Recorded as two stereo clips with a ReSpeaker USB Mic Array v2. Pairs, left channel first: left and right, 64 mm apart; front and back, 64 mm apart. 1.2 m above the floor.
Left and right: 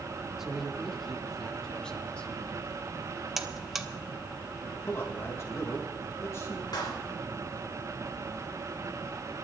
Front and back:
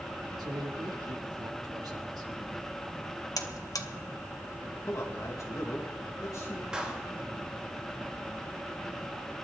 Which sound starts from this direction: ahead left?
A man speaking, at 4.9 s.